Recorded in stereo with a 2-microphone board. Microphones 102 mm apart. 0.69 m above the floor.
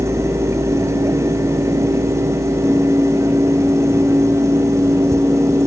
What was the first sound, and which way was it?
Only background noise.